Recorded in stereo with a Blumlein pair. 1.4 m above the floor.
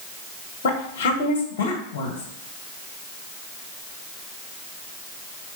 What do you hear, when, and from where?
0.6 s a woman speaking: 50° left, 1.9 m